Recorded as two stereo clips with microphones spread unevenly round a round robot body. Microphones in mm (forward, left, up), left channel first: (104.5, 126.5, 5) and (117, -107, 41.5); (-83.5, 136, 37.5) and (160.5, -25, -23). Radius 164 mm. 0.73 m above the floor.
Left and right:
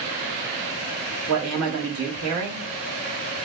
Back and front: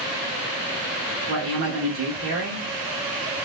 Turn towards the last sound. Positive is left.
turn(degrees=-75)